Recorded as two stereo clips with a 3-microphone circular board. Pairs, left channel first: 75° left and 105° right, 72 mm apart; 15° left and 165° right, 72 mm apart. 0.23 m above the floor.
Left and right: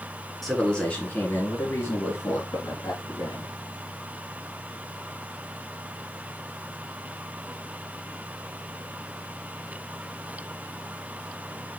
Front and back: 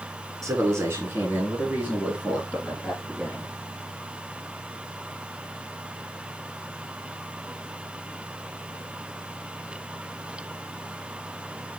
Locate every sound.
0.4 s a man speaking: 160° left, 3 m; by 3.5 s 110° left, 5.5 m